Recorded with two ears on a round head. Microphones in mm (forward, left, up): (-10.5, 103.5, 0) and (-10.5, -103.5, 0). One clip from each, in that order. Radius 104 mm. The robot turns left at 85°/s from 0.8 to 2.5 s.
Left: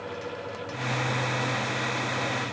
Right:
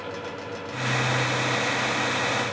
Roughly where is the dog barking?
No dog barking in this recording.